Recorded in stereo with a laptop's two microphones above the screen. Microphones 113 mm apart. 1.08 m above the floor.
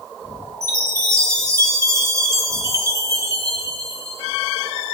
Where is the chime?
25° right (ahead or behind), 6.5 m.